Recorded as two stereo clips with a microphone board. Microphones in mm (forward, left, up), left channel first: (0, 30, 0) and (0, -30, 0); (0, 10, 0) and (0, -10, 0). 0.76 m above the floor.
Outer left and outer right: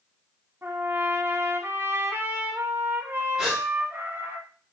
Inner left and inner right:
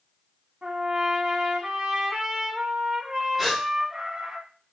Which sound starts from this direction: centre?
A gasp, at 3.4 s.